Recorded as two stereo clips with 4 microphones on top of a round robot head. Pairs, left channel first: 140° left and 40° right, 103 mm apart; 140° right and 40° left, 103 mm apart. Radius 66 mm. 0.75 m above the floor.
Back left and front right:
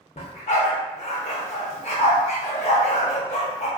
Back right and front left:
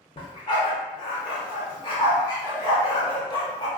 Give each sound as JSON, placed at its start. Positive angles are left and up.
{"t": 0.2, "sound": "a dog barking", "azimuth_deg": 170, "distance_m": 0.7}